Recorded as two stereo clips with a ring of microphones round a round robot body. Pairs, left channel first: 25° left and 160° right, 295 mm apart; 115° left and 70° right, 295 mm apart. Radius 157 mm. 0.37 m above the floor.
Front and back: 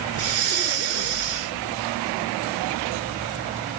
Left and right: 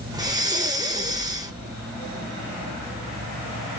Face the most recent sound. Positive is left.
turn(degrees=-140)